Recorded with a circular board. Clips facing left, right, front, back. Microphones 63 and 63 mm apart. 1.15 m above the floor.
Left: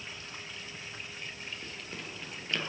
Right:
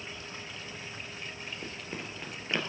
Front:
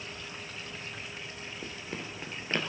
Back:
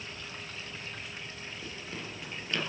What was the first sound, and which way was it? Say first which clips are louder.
Running footsteps: right 3 dB, front 2 dB; 35° right.